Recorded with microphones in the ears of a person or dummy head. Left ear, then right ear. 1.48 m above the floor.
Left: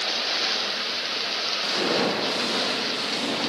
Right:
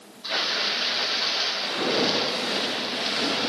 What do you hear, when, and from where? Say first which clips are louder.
1.6 s footsteps: left 3 dB; 15° left (ahead or behind), 3 m; by 3.5 s 20° right (ahead or behind), 4 m